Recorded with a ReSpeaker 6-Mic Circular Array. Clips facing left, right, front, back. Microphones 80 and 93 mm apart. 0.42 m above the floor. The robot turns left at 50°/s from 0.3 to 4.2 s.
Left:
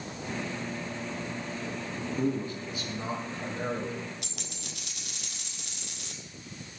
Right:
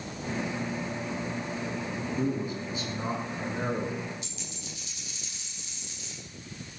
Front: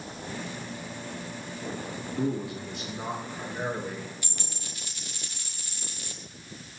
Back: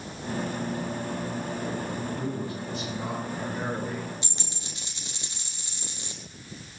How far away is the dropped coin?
About 2.0 m.